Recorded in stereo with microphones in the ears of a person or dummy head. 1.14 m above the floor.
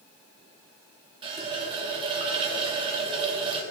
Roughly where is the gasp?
No gasp in this recording.